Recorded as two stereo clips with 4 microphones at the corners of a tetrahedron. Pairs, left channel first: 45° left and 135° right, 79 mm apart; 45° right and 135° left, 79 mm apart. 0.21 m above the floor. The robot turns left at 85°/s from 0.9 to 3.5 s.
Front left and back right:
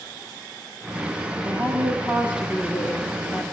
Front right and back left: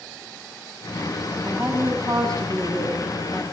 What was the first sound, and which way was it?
A woman speaking, 135° right.